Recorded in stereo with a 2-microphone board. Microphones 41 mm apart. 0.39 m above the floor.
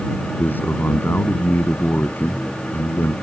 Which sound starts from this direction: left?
A man speaking, at 0.3 s.